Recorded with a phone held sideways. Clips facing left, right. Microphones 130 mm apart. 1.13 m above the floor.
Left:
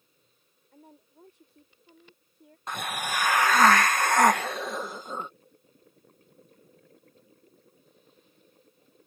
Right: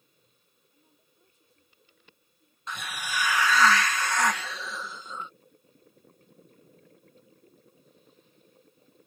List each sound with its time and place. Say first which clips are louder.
0.7 s a woman speaking: left 15 dB; 85° left
2.7 s a hiss: left 4 dB; 50° left (ahead or behind)